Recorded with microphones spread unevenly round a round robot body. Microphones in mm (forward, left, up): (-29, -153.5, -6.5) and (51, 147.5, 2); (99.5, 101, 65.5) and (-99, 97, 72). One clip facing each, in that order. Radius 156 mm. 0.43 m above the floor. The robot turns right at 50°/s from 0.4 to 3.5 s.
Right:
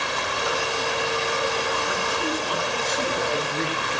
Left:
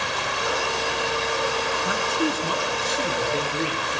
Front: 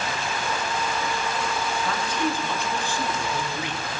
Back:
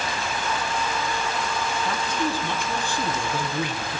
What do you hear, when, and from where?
1.9 s a man speaking: 105° left, 6 m; by 4.0 s 175° right, 6 m